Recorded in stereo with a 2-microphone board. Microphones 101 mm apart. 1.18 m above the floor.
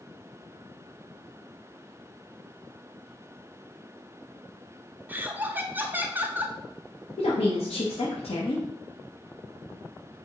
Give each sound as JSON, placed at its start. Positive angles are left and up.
{"t": 5.1, "sound": "laughter", "side_deg": -20, "distance_m": 0.5}
{"t": 7.2, "sound": "a woman speaking", "side_deg": 80, "distance_m": 0.8}